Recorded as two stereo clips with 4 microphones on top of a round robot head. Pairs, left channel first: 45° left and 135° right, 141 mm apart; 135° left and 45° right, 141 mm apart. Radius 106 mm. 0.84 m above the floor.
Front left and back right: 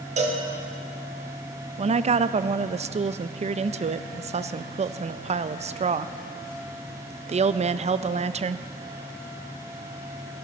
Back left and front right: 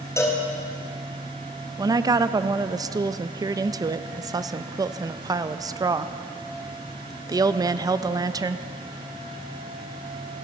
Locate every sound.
0.2 s a cowbell: 160° right, 1.7 m
1.8 s a woman speaking: 105° right, 0.5 m